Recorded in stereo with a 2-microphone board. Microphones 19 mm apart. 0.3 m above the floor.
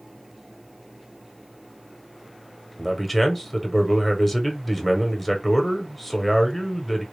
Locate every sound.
2.8 s a man speaking: 5° left (ahead or behind), 1.0 m